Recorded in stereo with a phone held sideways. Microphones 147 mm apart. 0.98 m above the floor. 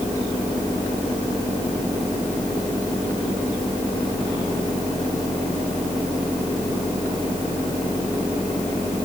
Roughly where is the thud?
No thud in this recording.